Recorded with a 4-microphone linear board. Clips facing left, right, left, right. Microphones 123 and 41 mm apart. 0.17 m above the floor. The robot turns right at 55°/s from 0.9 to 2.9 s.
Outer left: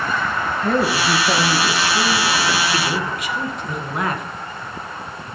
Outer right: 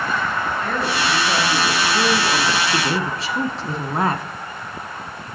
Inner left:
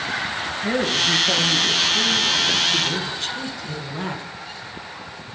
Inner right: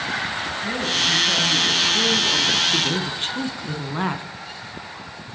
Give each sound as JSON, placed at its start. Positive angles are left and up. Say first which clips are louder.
{"t": 0.6, "sound": "a woman speaking", "louder": "outer left 7 dB, inner left 2 dB", "azimuth_deg": 140, "distance_m": 2.5}
{"t": 2.7, "sound": "a woman speaking", "louder": "outer right 1 dB, even", "side_deg": -25, "distance_m": 1.2}